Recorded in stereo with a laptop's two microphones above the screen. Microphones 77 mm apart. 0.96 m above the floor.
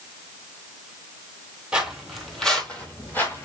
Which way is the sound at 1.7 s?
15° right (ahead or behind).